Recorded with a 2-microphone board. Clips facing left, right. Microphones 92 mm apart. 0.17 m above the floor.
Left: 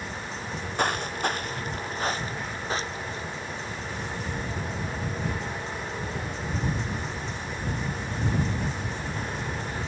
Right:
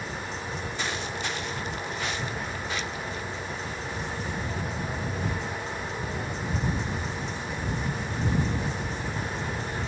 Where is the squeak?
No squeak in this recording.